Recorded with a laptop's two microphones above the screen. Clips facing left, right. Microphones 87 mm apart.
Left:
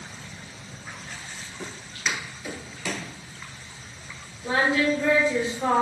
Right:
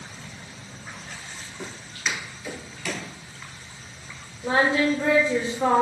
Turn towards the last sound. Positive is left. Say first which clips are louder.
# right 2 dB
turn(degrees=-45)  # may be behind; listen again after turning